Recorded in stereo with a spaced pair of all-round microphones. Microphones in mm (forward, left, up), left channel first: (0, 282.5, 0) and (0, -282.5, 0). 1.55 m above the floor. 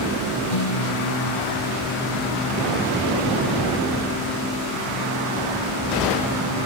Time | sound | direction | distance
0.5 | a guitar | 80° left | ?